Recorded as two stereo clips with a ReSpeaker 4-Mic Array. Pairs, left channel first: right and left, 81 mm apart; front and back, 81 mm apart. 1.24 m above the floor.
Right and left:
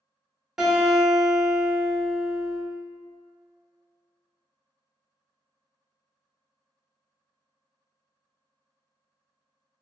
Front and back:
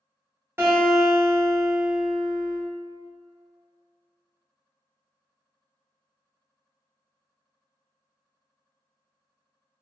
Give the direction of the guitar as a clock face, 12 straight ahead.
6 o'clock.